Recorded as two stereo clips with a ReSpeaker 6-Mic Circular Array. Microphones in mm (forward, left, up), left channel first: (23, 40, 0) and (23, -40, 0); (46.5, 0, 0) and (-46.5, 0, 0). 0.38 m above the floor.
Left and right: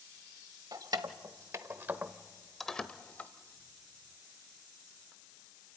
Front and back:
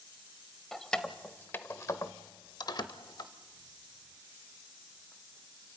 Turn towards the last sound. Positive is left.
turn(degrees=25)